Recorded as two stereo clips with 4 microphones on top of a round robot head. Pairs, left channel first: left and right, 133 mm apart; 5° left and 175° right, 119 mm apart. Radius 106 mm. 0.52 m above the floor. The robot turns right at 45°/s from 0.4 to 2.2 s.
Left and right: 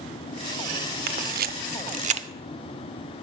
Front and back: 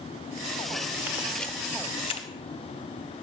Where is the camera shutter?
95° right, 0.5 m; by 2.3 s 45° right, 0.5 m.